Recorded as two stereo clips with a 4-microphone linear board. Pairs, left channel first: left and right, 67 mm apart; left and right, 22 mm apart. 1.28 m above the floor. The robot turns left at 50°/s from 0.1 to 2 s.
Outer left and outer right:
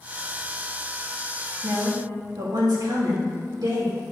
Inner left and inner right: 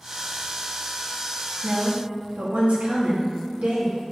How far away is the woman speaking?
About 2.5 m.